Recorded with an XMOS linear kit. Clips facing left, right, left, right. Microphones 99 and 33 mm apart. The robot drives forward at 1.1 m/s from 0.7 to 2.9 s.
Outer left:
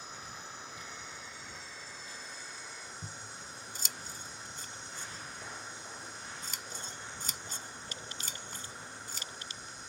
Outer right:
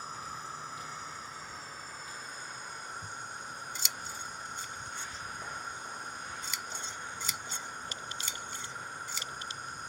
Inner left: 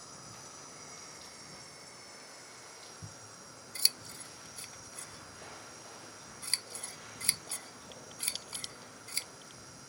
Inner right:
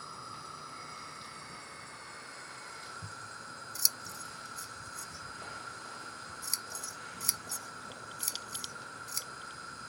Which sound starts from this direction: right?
An insect, at 0.0 s.